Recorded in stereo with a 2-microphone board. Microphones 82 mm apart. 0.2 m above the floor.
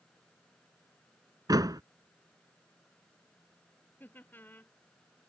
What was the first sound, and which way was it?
A door slam, 55° right (ahead or behind).